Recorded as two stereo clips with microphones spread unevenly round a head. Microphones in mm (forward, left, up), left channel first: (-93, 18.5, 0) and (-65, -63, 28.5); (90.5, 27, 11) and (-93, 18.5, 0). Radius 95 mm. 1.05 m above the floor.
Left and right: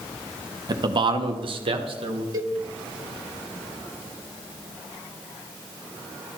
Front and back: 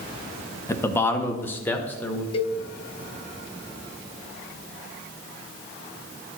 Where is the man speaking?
65° right, 0.7 m; by 2.2 s 80° right, 1.4 m.